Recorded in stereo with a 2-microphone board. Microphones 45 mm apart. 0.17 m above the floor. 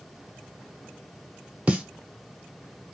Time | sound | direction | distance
1.7 | a snare drum | 25° right (ahead or behind) | 0.7 m